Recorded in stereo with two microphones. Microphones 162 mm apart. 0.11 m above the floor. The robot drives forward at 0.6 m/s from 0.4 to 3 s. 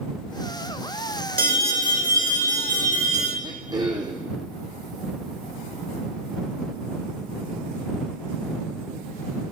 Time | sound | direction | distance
1.4 | an alarm | 60° right (ahead or behind) | 3 m
3.4 | throat clearing | 25° right (ahead or behind) | 1.4 m